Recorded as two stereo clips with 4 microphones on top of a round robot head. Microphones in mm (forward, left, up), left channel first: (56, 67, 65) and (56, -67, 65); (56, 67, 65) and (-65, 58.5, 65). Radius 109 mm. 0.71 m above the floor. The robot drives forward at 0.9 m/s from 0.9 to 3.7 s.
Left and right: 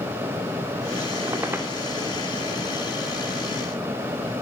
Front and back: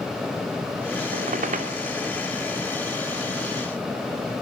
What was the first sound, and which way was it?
A squeak, 165° right.